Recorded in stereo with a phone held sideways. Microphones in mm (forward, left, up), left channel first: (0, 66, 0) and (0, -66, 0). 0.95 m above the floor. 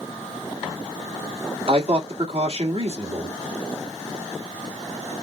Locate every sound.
1.7 s a man speaking: 50° right (ahead or behind), 1.8 m